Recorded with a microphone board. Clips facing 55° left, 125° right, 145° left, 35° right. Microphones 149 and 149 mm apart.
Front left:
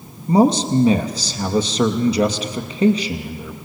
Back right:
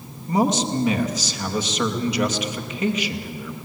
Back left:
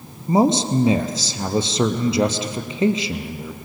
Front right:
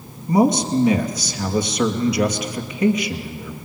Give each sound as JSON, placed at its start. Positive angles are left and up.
{"t": 0.3, "sound": "a man speaking", "azimuth_deg": 95, "distance_m": 2.5}